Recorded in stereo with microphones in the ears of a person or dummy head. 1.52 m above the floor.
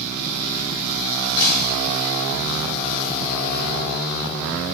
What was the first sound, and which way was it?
Breaking glass, 65° left (ahead or behind).